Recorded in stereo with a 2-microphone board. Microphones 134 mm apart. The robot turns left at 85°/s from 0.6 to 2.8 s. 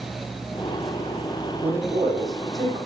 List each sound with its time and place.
1.6 s a man speaking: 5° right, 4 m; by 2.8 s 105° right, 4 m